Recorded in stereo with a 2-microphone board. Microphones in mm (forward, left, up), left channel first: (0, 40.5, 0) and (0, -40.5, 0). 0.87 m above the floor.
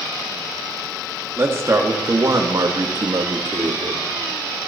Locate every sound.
1.4 s a man speaking: 30° right (ahead or behind), 1.7 m; by 4.0 s 55° right (ahead or behind), 1.6 m